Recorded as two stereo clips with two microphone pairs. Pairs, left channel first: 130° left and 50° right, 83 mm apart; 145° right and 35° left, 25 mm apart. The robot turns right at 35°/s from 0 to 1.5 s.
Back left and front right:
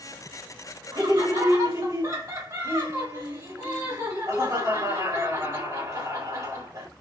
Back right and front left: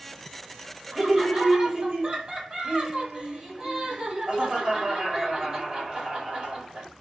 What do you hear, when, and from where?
0.9 s laughter: 25° right, 2 m; by 6.9 s 5° right, 2 m